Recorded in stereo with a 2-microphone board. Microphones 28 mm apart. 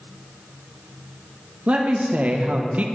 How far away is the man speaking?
About 1.4 m.